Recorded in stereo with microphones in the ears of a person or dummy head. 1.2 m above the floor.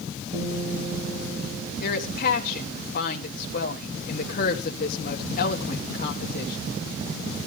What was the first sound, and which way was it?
A guitar, 35° right (ahead or behind).